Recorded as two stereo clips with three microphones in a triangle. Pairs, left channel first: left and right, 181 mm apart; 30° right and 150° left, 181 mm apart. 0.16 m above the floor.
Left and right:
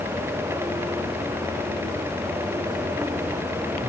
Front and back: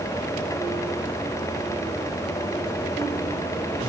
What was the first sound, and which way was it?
Only background noise.